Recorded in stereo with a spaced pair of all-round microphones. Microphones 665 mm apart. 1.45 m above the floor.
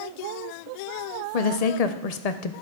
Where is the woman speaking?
65° left (ahead or behind), 0.7 m.